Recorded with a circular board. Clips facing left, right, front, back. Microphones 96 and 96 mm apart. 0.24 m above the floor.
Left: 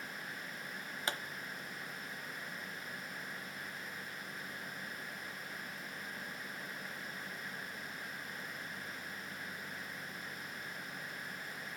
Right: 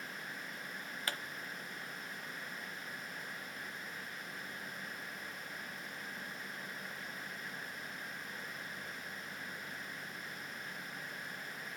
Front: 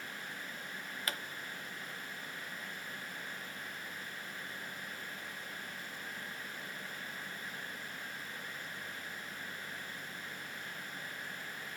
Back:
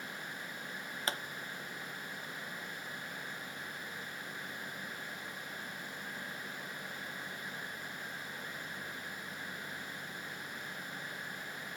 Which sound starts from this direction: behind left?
A pop, at 1.1 s.